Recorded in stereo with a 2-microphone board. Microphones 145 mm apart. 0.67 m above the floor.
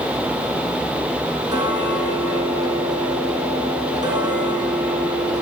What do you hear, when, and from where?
1.5 s ticking: 30° right (ahead or behind), 3.5 m